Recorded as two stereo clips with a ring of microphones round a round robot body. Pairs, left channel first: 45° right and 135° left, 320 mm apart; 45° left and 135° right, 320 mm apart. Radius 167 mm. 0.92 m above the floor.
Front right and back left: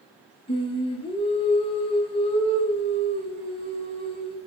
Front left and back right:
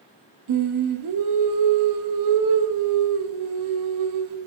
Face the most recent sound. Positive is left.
turn(degrees=-120)